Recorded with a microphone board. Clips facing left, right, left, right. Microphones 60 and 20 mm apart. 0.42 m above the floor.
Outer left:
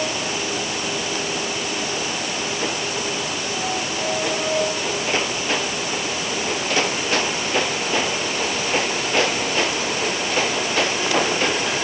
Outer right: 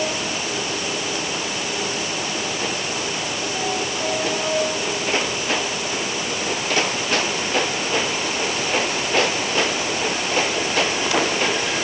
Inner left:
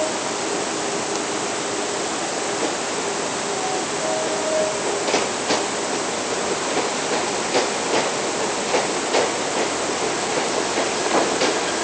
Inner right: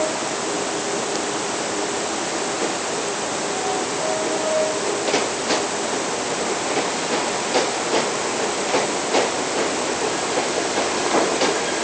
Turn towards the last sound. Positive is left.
No sound to turn to.